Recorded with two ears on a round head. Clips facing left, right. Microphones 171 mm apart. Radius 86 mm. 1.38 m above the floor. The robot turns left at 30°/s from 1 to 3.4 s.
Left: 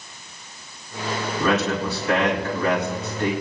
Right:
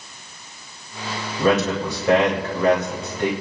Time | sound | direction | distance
1.4 | a man speaking | 30° right (ahead or behind) | 2.5 m